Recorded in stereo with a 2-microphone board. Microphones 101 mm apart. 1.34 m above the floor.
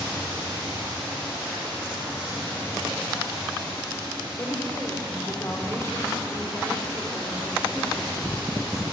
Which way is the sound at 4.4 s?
30° left (ahead or behind).